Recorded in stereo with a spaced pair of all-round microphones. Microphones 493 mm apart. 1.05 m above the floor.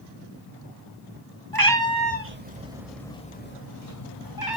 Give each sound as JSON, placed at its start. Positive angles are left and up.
{"t": 1.5, "sound": "a cat meowing", "side_deg": -45, "distance_m": 1.2}